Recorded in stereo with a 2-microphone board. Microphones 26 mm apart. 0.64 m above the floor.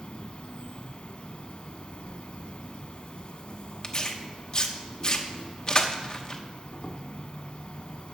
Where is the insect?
55° left (ahead or behind), 0.8 m.